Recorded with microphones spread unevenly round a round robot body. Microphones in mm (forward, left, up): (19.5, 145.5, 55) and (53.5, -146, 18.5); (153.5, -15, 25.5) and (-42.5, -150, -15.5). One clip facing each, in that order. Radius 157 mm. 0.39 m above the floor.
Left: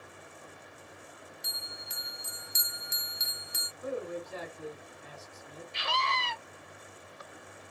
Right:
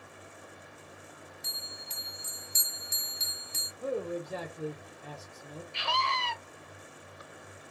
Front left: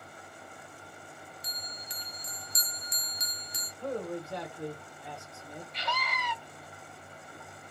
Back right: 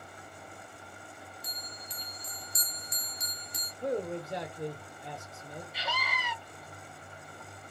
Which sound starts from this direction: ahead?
A bell, at 1.4 s.